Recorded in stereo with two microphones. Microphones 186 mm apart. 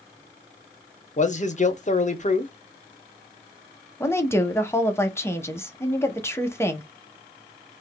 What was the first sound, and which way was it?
A man speaking, 40° left (ahead or behind).